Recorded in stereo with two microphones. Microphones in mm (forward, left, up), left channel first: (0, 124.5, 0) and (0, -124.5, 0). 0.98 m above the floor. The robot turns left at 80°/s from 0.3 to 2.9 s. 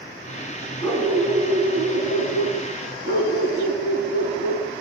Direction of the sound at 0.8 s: 20° left.